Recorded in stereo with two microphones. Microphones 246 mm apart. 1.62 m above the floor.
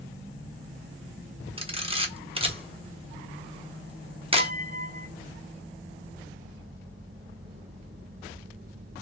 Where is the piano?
40° right (ahead or behind), 0.7 m.